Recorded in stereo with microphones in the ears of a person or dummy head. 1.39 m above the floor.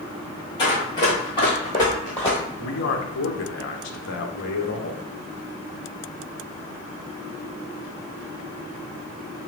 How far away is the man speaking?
About 0.6 m.